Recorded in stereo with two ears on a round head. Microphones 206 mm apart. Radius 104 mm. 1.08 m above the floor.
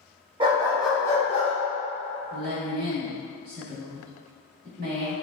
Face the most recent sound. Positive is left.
turn(degrees=-50)  # may be behind; listen again after turning